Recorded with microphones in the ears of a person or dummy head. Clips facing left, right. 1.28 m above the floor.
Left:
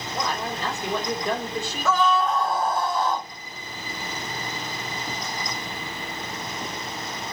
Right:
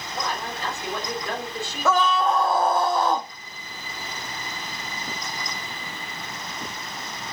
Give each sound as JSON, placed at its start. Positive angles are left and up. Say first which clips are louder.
{"t": 0.1, "sound": "a man speaking", "louder": "left 2 dB", "side_deg": 90, "distance_m": 5.0}
{"t": 1.9, "sound": "a scream", "louder": "right 1 dB", "side_deg": -45, "distance_m": 0.9}